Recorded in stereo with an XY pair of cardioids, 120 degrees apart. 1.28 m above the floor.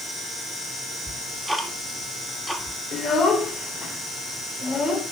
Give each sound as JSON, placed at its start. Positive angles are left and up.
{"t": 1.1, "sound": "ticking", "azimuth_deg": 0, "distance_m": 2.5}
{"t": 2.9, "sound": "a child speaking", "azimuth_deg": 35, "distance_m": 4.0}